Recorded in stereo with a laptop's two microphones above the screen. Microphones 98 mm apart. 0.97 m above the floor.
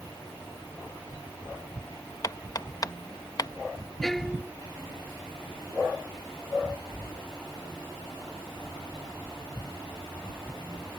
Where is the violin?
Centre (ahead or behind).